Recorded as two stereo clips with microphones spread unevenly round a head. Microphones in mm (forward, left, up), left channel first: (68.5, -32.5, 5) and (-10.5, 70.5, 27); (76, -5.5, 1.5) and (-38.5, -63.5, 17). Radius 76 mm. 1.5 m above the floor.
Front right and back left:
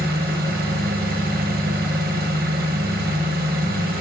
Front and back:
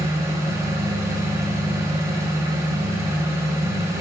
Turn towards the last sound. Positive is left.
turn(degrees=135)